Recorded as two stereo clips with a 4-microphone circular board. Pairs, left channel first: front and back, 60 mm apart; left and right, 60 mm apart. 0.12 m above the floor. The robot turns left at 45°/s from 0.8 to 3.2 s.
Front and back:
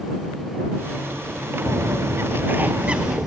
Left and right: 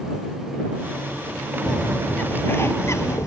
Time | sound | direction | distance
1.7 | a bird | 170° left | ?